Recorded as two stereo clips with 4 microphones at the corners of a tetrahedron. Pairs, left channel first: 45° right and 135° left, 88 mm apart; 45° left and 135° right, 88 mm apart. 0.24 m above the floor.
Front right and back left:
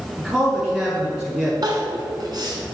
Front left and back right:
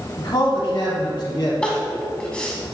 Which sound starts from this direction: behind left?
Crying, at 1.6 s.